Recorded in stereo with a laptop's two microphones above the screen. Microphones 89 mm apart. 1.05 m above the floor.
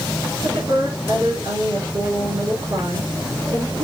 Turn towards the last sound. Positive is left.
turn(degrees=-60)  # may be behind; listen again after turning